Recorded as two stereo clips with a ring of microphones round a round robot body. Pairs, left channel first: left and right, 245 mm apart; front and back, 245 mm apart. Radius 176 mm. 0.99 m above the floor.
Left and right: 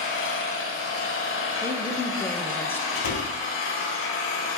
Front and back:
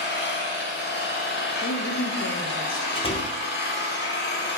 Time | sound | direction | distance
0.0 | an engine running | 50° left | 0.9 m
1.6 | a woman speaking | 10° left | 0.7 m
3.0 | a door slam | 70° left | 0.8 m